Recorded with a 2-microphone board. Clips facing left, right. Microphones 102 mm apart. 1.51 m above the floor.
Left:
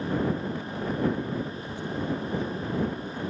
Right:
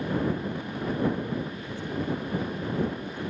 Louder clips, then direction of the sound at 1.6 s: Even; 10° left (ahead or behind).